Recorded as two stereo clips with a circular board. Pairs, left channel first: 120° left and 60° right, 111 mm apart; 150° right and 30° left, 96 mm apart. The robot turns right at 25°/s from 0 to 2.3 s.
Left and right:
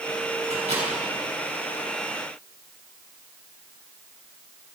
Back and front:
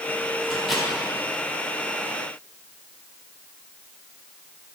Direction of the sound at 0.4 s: 65° right.